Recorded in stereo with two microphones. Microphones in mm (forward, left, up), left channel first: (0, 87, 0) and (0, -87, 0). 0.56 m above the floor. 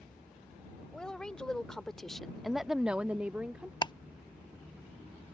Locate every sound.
0.9 s a woman speaking: 5° left (ahead or behind); by 3.7 s 10° right (ahead or behind)
3.8 s ticking: 25° left (ahead or behind)